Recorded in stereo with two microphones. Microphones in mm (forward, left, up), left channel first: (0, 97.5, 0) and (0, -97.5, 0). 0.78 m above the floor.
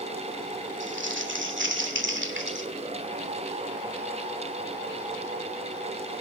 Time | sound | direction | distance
0.8 | crumpling | 70° right (ahead or behind) | 2.5 m